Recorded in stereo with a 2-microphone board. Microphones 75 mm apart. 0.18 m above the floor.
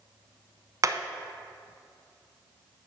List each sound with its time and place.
0.8 s hammering: 45° right (ahead or behind), 0.5 m